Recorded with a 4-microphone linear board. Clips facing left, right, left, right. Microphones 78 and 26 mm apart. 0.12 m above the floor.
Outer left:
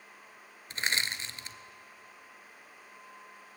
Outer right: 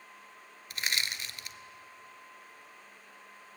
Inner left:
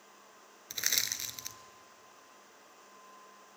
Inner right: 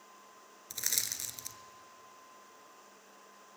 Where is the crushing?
30° left (ahead or behind), 0.7 m.